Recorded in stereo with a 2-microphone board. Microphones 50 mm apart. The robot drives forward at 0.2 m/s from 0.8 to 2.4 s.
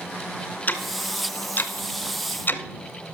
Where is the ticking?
40° left (ahead or behind), 0.7 m; by 3.1 s 45° left (ahead or behind), 0.7 m.